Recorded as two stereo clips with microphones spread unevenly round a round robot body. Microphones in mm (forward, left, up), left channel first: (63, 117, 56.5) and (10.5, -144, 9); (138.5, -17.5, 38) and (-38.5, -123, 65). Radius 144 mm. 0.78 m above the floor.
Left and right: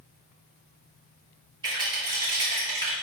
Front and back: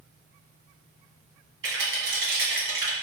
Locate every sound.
1.6 s a rattle: 165° right, 1.2 m